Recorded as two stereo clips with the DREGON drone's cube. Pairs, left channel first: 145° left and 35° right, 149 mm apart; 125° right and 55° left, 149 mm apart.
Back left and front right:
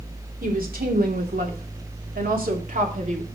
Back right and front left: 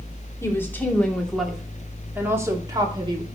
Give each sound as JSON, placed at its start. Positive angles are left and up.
{"t": 0.4, "sound": "a woman speaking", "azimuth_deg": -50, "distance_m": 3.0}